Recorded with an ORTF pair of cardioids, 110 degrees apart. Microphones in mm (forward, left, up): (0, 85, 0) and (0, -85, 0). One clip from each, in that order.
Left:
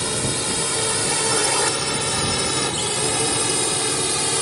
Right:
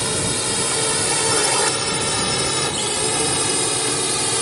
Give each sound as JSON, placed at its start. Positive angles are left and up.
{"t": 0.0, "sound": "a drone", "azimuth_deg": -10}